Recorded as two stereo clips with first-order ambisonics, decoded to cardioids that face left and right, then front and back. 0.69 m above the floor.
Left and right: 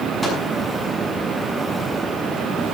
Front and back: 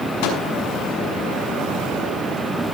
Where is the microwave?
5° right, 6 m.